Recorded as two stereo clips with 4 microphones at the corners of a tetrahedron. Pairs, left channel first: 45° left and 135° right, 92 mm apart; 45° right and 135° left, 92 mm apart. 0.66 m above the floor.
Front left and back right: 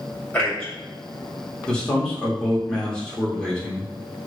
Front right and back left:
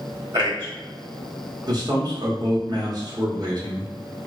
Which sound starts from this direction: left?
A man speaking, at 0.3 s.